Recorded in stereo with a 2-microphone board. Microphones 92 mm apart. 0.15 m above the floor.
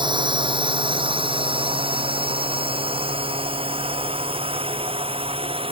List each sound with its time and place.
0.0 s a drone: 60° right (ahead or behind); by 5.7 s 80° right